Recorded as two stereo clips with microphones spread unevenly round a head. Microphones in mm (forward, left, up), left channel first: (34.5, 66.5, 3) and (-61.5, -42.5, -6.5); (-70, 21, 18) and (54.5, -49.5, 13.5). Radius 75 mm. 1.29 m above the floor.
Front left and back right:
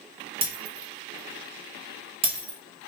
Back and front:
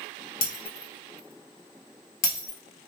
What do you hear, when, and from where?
0.4 s breaking glass: 175° left, 1.4 m